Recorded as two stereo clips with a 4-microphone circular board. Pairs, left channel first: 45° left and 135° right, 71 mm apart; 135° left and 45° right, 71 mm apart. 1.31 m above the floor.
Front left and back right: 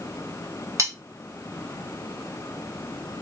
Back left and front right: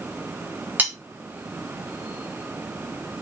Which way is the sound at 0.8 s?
105° right.